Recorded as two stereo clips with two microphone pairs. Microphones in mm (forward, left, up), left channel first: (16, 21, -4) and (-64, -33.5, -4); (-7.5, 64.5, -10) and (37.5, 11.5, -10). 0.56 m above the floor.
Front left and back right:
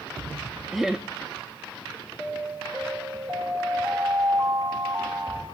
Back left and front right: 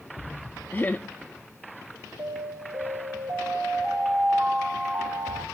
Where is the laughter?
135° left, 0.6 m.